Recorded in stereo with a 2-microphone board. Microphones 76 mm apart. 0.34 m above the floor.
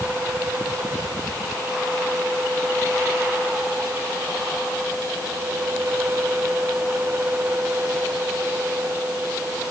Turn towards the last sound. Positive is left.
No sound to turn to.